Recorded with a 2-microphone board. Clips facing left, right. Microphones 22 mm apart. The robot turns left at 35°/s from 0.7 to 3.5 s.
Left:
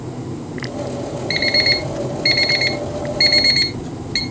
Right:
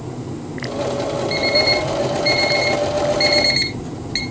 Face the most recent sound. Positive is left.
turn(degrees=-5)  # may be behind; listen again after turning